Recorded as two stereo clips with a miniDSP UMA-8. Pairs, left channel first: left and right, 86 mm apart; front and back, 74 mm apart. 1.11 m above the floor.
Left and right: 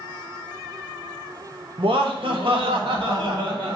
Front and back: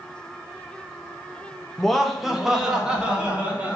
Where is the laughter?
85° right, 1.2 m; by 3.8 s 105° right, 2.5 m.